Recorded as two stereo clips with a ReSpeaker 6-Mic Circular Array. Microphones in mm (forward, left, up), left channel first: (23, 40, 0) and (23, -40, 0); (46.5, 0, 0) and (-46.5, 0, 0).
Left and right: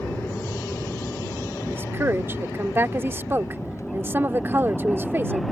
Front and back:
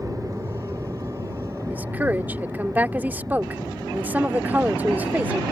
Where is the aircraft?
150° left; by 5.5 s 135° left.